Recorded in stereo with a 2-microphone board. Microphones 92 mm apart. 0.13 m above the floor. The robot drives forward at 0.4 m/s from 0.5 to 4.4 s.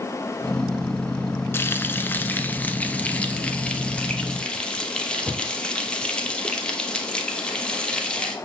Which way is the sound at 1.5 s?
25° left (ahead or behind).